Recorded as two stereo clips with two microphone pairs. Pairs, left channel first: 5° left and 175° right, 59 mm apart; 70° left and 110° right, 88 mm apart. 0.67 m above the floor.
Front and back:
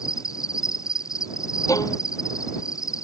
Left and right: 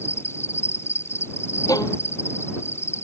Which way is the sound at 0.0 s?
5° left.